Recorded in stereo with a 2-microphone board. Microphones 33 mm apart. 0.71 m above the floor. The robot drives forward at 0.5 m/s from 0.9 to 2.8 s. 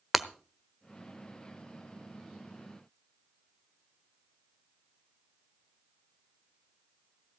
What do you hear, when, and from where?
0.1 s breaking glass: 5° right (ahead or behind), 1.0 m